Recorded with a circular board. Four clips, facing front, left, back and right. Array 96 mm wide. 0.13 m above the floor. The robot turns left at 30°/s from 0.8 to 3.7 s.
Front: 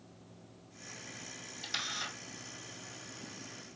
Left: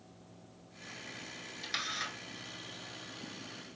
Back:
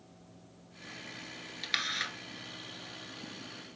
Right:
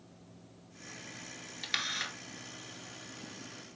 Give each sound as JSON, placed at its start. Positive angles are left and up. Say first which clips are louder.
{"t": 1.6, "sound": "a camera shutter", "louder": "right 1 dB, back 4 dB", "azimuth_deg": -155, "distance_m": 1.1}